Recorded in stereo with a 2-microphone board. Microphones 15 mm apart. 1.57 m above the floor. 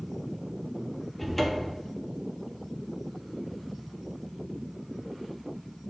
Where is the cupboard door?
5° left (ahead or behind), 1.0 m.